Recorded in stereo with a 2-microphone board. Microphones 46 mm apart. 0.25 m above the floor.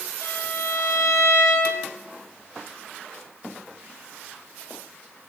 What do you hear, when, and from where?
0.2 s a violin: 70° left (ahead or behind), 9 m